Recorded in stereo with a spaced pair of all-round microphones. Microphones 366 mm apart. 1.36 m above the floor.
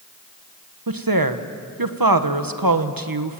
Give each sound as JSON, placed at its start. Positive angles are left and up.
{"t": 0.9, "sound": "a woman speaking", "side_deg": -70, "distance_m": 1.3}